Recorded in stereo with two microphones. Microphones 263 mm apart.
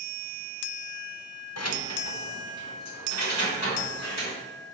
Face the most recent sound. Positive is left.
turn(degrees=85)